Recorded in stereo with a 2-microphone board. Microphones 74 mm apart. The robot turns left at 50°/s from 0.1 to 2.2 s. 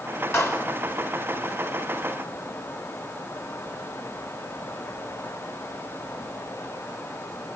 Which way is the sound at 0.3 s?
40° left (ahead or behind).